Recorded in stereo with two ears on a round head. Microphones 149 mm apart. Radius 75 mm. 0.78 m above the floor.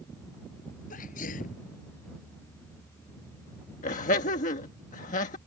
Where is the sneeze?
50° left (ahead or behind).